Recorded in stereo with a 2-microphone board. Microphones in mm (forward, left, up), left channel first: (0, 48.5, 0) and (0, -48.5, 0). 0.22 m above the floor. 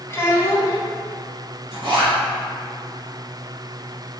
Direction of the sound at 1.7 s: 55° right (ahead or behind).